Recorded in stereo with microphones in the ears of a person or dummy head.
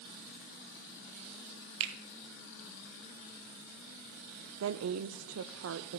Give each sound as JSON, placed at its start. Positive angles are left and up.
{"t": 1.8, "sound": "a finger snap", "side_deg": -70, "distance_m": 1.6}
{"t": 4.6, "sound": "a woman speaking", "side_deg": -70, "distance_m": 0.6}